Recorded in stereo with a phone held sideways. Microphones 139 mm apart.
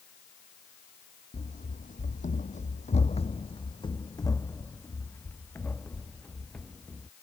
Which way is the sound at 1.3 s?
60° left (ahead or behind).